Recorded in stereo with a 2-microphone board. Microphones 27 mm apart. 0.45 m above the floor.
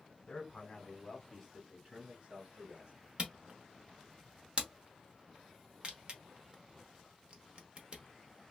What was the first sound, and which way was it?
A man speaking, 40° left (ahead or behind).